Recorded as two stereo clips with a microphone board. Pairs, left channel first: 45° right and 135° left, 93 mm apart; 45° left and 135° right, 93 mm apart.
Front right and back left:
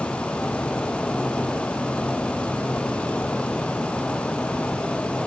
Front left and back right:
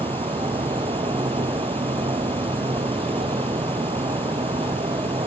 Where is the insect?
125° right.